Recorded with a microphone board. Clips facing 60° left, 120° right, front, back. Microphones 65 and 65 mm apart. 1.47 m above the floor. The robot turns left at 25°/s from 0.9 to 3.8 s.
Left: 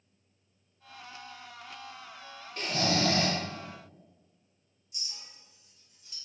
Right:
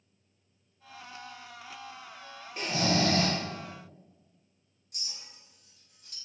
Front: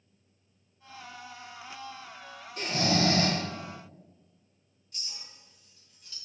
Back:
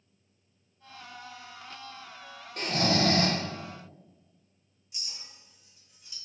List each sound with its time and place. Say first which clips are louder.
2.6 s snoring: right 1 dB, back 1 dB; 170° left, 0.6 m; by 3.4 s 150° left, 0.6 m
4.9 s a clink: right 1 dB, even; 105° right, 0.6 m